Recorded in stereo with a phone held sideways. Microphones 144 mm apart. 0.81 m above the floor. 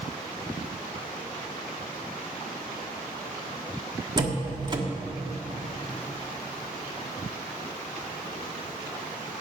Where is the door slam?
30° right (ahead or behind), 1.4 m.